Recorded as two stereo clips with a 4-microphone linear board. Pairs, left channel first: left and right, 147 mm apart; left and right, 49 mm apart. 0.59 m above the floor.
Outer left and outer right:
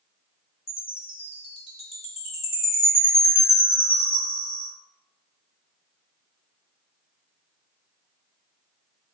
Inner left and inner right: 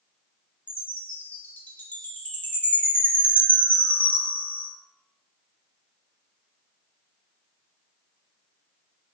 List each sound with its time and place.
0.7 s a chime: 40° left (ahead or behind), 1.0 m